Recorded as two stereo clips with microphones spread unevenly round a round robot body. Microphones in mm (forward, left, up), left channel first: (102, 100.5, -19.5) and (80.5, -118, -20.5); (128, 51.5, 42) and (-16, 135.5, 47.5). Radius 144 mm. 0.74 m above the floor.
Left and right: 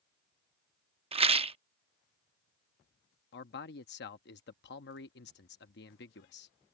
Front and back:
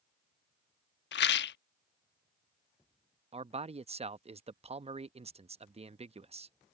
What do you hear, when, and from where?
1.1 s a rattle: 30° right
3.3 s a man speaking: 110° left